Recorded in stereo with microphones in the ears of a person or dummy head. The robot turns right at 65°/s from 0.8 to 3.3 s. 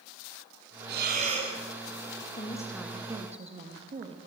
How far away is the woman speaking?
About 3 m.